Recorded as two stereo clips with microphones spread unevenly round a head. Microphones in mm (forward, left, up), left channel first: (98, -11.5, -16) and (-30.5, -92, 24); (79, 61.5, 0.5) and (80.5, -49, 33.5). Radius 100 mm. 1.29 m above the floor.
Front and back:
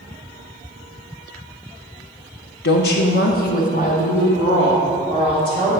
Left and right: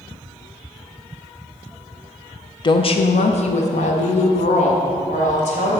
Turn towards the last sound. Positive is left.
turn(degrees=100)